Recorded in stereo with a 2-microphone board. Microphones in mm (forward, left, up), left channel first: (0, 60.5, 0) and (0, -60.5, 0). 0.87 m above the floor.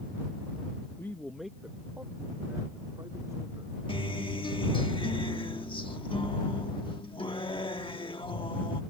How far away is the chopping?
I don't hear chopping.